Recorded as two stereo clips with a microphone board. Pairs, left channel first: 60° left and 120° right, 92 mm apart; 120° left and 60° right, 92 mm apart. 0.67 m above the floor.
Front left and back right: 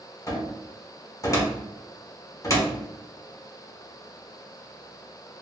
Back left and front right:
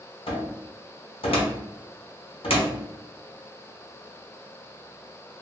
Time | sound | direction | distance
0.3 | a cupboard door | 110° left | 0.7 m